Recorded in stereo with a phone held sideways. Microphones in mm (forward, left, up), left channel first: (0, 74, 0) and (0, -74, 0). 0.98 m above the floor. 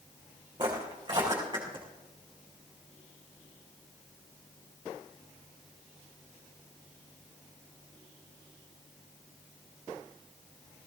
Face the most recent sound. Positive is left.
turn(degrees=-35)  # may be behind; listen again after turning